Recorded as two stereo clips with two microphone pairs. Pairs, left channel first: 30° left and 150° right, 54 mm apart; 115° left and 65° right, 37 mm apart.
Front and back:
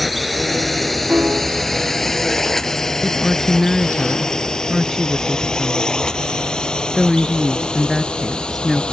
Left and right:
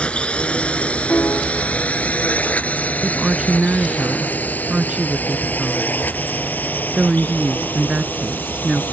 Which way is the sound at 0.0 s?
120° left.